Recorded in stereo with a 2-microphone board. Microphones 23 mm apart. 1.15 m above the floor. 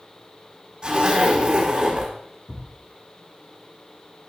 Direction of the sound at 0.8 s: 35° right (ahead or behind).